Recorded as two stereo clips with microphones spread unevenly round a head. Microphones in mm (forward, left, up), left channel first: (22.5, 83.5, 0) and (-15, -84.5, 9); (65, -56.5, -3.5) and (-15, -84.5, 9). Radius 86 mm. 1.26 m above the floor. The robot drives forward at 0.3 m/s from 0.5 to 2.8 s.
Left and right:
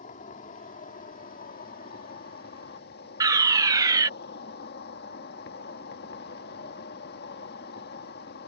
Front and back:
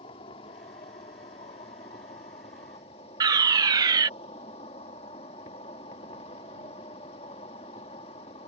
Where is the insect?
30° left; by 8.5 s 45° left.